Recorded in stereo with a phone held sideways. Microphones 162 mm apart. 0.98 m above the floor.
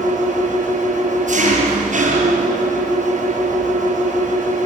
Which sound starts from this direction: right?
An engine running, at 0.0 s.